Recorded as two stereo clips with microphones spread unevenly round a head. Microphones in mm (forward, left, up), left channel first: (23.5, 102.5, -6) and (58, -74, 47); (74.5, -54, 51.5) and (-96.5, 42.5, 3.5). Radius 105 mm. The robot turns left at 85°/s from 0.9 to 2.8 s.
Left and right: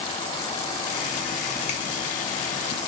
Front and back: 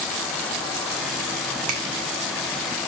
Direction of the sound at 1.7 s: 165° left.